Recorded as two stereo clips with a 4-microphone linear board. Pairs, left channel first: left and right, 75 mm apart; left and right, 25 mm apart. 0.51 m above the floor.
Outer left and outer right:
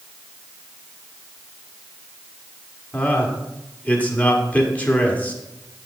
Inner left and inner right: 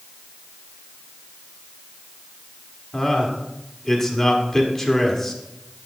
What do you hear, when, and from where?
2.9 s a man speaking: 20° left (ahead or behind), 1.2 m